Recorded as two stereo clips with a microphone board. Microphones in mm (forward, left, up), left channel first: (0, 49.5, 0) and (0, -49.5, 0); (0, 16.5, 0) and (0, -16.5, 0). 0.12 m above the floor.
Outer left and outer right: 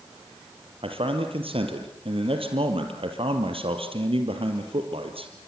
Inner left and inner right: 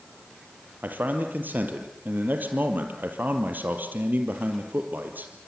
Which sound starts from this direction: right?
A man speaking, at 0.8 s.